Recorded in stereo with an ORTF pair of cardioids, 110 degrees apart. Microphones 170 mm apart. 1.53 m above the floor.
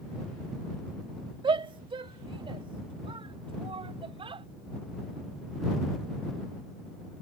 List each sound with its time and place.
1.4 s a shout: 30° right